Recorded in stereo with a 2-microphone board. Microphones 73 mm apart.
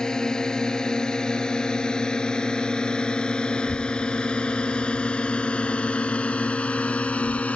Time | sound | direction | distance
0.0 | a drone | 10° left (ahead or behind) | ?
3.5 | a child speaking | 20° left (ahead or behind) | ?